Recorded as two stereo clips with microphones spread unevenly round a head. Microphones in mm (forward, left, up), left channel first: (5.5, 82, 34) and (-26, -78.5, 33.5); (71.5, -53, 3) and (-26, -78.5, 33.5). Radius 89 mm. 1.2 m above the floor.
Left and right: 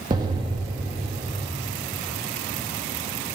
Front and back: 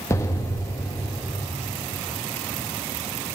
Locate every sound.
0.1 s an explosion: 55° right, 0.6 m